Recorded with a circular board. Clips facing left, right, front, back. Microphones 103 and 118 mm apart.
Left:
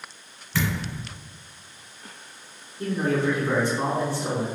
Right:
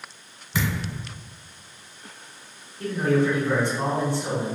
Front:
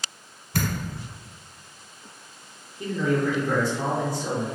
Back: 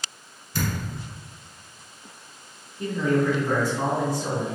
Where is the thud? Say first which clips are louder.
Even, front 1 dB; 10° right, 0.9 m.